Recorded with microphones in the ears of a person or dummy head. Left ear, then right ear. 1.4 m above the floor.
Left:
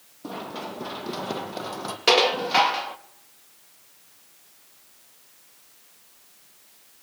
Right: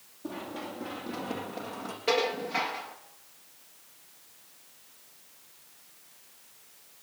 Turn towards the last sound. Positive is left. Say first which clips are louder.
# left 9 dB
turn(degrees=55)  # may be behind; listen again after turning